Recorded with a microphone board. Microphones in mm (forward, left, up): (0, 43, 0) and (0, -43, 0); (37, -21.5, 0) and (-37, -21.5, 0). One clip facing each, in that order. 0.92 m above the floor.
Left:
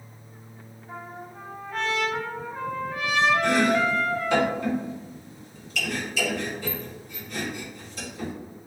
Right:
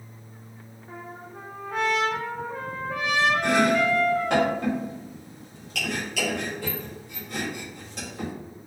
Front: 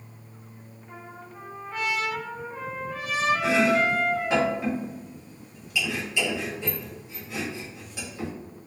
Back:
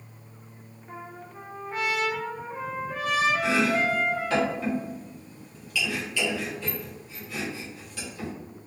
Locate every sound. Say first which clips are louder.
0.9 s a trumpet: left 1 dB, back 2 dB; 110° right, 0.9 m
3.4 s chopping: even, front 2 dB; 70° right, 1.1 m